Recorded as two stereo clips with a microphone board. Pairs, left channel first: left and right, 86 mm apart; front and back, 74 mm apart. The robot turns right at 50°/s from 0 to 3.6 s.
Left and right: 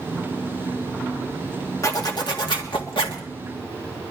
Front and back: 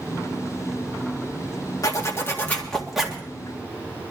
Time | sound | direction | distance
1.8 | a zipper | 40° left | 1.8 m